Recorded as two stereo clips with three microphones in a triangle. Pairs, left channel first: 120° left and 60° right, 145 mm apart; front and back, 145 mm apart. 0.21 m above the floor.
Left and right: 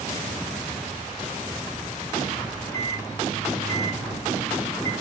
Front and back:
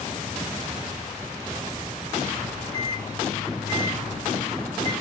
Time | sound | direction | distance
2.4 | a microwave | 60° left | 1.8 m